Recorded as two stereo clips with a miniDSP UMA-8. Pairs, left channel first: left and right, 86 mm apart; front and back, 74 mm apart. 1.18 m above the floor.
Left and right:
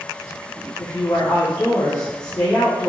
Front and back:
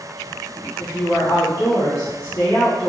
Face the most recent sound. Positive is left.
turn(degrees=45)